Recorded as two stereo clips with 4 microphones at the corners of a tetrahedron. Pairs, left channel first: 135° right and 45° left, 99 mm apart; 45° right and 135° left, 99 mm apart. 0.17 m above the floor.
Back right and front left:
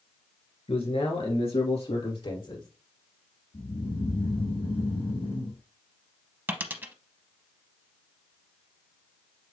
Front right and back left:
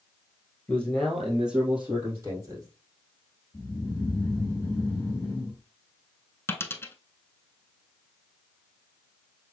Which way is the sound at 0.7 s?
120° right.